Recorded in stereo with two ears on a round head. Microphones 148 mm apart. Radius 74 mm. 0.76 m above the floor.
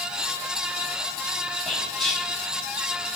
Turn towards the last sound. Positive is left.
turn(degrees=5)  # may be behind; listen again after turning